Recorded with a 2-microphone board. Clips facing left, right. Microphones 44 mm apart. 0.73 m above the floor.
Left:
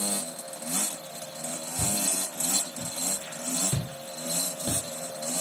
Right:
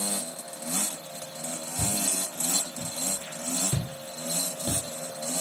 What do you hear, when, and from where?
1.8 s footsteps: 25° right (ahead or behind), 1.4 m; by 4.8 s 20° left (ahead or behind), 0.9 m